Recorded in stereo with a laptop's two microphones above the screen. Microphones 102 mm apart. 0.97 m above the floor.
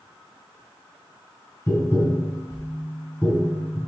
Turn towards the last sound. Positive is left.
turn(degrees=25)  # may be behind; listen again after turning